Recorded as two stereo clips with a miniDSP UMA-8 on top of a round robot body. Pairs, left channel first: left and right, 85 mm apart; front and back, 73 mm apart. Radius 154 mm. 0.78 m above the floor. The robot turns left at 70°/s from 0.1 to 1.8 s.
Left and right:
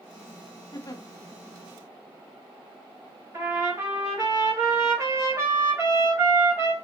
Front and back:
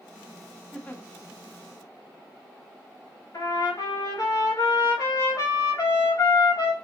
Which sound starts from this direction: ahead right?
A trumpet, at 3.3 s.